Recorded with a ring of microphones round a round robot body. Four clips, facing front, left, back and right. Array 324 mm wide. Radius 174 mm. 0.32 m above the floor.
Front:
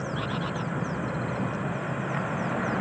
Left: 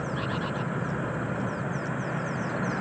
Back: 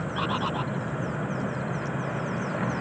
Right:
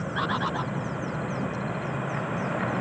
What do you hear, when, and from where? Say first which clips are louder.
0.1 s a bird: right 3 dB, back 6 dB; 125° right